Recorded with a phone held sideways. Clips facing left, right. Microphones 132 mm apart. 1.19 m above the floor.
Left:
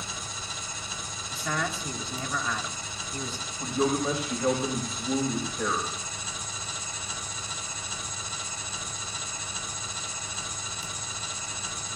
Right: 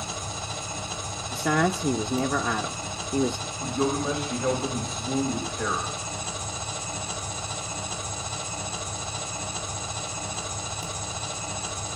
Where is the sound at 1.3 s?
65° right (ahead or behind), 0.5 m.